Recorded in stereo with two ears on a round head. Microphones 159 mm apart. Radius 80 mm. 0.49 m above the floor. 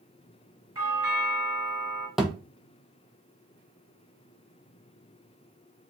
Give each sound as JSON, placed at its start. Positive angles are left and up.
{"t": 0.8, "sound": "a doorbell", "side_deg": -20, "distance_m": 1.9}
{"t": 2.2, "sound": "a thud", "side_deg": 0, "distance_m": 0.6}